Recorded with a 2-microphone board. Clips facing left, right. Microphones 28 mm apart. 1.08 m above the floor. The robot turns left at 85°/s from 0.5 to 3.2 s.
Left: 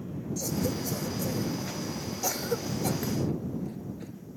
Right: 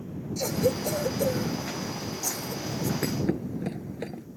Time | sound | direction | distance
0.4 | a cough | 55° right (ahead or behind) | ?
3.0 | a thud | 75° right (ahead or behind) | ?